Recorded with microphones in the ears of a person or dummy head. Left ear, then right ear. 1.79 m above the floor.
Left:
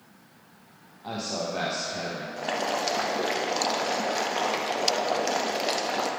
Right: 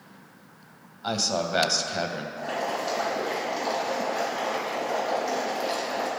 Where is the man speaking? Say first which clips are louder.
Right 5 dB; 55° right (ahead or behind), 0.7 m.